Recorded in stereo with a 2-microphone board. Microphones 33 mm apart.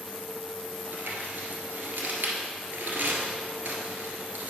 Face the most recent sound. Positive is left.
turn(degrees=-70)  # may be behind; listen again after turning